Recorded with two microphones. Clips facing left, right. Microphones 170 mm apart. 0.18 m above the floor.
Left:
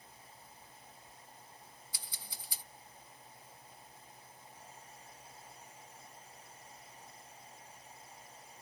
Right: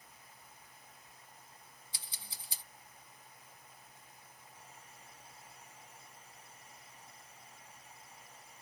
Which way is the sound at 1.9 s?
25° right (ahead or behind).